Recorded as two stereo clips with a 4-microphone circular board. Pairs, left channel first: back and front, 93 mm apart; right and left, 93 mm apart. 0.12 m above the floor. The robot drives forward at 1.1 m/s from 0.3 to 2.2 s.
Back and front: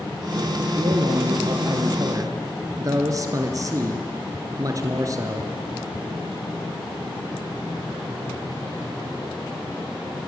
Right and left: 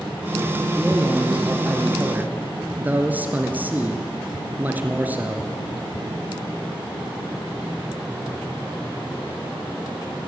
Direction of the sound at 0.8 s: 10° left.